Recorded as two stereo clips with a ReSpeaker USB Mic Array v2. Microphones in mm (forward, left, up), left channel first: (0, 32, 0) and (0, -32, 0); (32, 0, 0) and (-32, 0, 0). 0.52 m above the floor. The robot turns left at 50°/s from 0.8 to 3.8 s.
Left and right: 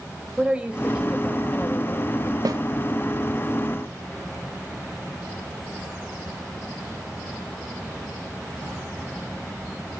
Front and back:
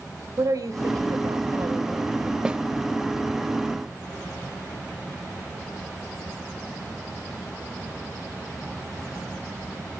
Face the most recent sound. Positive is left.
turn(degrees=-170)